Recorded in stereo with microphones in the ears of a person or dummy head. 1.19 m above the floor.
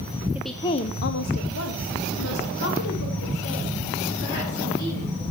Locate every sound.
0.3 s a woman speaking: 10° right (ahead or behind), 0.6 m; by 5.2 s 75° left (ahead or behind), 5 m